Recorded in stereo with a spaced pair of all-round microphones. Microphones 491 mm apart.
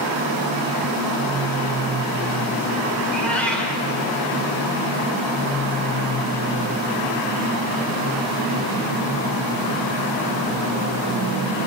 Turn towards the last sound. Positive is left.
turn(degrees=5)  # may be behind; listen again after turning